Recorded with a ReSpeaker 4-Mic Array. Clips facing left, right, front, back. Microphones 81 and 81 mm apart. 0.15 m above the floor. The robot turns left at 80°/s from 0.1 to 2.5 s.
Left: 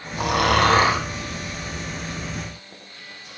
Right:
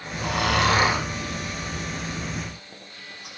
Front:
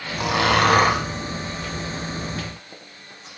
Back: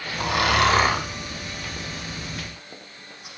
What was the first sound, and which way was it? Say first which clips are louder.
Snoring: left 5 dB, front 2 dB; 85° left.